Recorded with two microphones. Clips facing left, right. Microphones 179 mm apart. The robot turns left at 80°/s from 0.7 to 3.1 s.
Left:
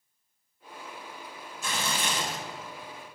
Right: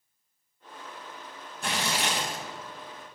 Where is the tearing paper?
65° right, 1.0 m; by 2.4 s 130° right, 1.0 m.